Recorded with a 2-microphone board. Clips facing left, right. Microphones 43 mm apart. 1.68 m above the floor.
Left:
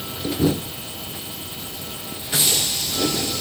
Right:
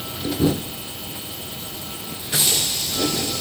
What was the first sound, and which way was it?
Only background noise.